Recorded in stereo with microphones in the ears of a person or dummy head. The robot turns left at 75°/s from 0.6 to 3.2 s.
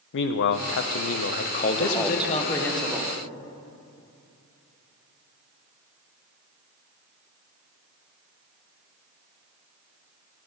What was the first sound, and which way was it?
A man speaking, 115° left.